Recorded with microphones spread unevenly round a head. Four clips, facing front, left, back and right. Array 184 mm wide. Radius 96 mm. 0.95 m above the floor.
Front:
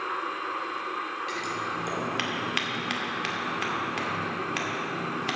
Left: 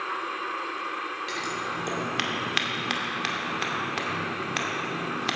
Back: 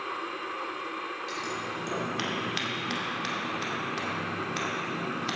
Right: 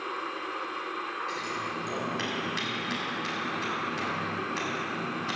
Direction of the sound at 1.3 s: 60° left.